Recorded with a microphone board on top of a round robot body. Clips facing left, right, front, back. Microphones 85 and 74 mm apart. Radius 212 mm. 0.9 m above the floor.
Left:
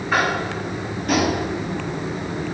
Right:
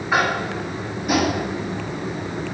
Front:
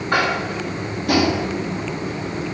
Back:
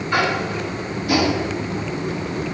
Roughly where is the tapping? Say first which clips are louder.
Even, even; ahead.